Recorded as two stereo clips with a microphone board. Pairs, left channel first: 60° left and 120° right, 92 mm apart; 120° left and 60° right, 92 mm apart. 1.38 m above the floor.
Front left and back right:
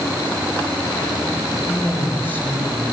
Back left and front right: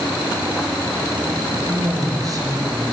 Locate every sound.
1.6 s a woman speaking: 10° right, 7.5 m